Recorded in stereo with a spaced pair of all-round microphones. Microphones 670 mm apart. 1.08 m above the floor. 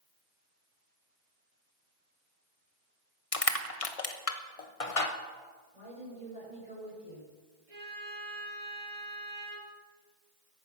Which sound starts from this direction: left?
Crushing, at 3.3 s.